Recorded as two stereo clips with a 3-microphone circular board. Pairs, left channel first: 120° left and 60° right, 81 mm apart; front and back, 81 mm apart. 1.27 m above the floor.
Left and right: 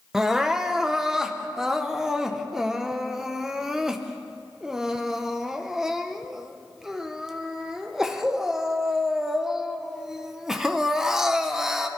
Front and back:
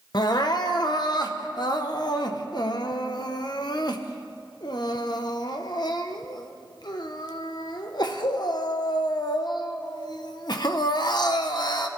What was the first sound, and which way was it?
Crying, 25° left.